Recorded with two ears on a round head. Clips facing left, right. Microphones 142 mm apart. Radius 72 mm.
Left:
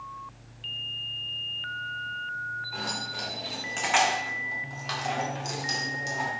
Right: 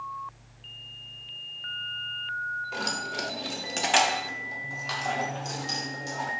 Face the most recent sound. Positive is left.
turn(degrees=25)  # may be behind; listen again after turning